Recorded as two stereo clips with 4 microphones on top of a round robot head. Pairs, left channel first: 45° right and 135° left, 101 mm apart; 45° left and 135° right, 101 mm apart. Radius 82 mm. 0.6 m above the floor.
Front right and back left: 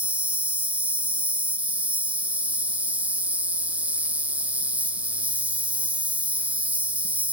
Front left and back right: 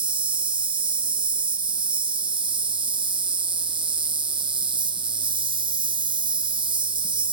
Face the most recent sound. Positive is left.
turn(degrees=-155)